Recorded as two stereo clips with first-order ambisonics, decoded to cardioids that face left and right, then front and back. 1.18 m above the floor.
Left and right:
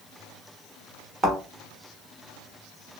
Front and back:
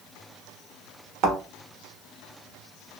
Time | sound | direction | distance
1.2 | a thud | 155° right | 1.3 m